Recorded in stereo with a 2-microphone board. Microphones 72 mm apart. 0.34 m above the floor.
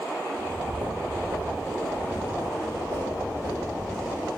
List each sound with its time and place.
0.3 s footsteps: 65° right (ahead or behind), 0.6 m; by 4.4 s 35° right (ahead or behind), 2.5 m